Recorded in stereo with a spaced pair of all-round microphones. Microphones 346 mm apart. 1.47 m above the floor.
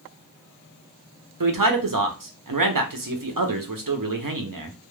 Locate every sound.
1.4 s a man speaking: 70° right (ahead or behind), 0.7 m